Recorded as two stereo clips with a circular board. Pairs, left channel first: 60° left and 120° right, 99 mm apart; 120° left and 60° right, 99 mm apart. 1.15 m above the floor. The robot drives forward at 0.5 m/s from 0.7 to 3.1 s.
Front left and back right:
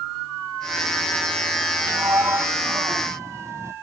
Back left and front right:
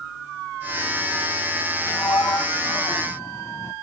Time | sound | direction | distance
1.9 | a sliding door | straight behind | ?